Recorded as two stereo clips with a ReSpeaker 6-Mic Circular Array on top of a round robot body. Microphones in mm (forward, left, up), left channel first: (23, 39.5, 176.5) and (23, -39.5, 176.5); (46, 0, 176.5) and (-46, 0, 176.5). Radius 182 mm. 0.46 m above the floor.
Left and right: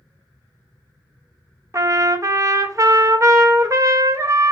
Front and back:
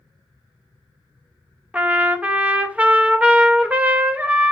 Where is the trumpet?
110° right, 0.8 m.